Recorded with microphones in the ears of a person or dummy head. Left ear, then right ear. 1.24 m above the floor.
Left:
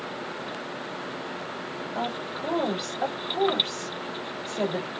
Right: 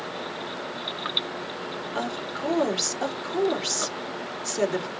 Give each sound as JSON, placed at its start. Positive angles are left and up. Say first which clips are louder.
{"t": 1.9, "sound": "a woman speaking", "louder": "even", "side_deg": -45, "distance_m": 3.0}